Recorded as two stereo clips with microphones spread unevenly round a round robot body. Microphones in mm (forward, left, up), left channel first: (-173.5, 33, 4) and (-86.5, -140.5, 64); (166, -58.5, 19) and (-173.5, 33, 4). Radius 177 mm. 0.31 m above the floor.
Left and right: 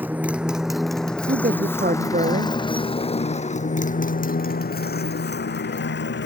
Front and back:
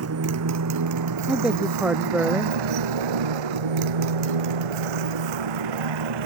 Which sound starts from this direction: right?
A man speaking, at 1.3 s.